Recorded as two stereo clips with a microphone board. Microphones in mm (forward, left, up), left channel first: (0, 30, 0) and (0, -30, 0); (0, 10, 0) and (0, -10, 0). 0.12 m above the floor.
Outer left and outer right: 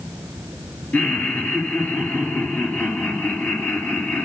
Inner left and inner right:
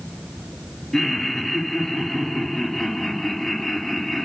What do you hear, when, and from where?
0.9 s laughter: 30° left (ahead or behind), 2 m